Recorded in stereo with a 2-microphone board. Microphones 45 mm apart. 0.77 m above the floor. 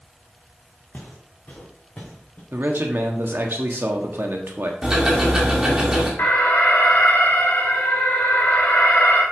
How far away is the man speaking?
About 1.4 m.